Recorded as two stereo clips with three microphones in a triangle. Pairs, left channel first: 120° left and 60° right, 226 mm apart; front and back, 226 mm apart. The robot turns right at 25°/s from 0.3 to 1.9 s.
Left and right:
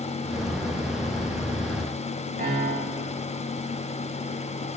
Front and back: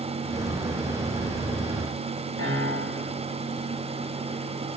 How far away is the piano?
About 9 m.